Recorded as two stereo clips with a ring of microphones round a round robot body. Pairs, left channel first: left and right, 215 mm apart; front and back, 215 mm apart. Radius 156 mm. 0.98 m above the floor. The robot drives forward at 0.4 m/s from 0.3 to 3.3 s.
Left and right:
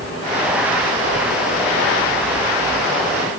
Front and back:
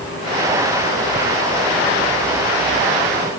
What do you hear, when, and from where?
Only background noise.